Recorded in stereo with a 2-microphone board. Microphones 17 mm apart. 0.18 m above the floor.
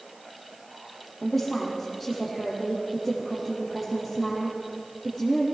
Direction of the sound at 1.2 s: 10° right (ahead or behind).